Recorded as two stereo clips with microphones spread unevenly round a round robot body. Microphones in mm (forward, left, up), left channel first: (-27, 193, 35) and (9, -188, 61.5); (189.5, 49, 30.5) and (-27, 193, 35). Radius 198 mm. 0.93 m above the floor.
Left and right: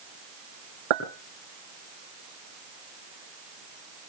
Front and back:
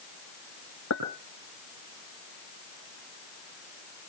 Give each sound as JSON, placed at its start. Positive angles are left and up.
{"t": 0.9, "sound": "a clink", "azimuth_deg": -90, "distance_m": 6.0}